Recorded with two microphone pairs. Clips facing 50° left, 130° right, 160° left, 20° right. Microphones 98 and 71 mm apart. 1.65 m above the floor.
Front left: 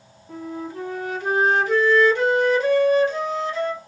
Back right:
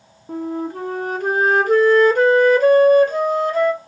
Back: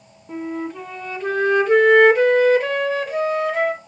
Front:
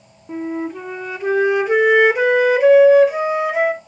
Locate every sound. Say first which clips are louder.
0.3 s a flute: back right 7 dB, front 3 dB; 100° right, 0.8 m